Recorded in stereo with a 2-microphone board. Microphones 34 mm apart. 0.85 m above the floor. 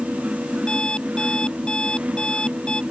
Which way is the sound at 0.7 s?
30° left (ahead or behind).